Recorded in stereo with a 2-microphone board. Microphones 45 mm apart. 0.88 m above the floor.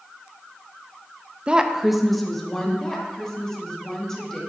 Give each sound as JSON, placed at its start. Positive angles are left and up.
{"t": 1.5, "sound": "a woman speaking", "side_deg": -30, "distance_m": 0.6}
{"t": 2.8, "sound": "a woman speaking", "side_deg": 10, "distance_m": 1.8}